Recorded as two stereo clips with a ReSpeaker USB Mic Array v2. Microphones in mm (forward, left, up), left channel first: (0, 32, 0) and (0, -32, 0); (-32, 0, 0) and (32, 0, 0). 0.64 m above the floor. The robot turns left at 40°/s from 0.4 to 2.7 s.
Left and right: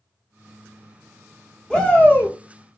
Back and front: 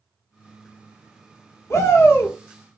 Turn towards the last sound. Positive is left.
turn(degrees=125)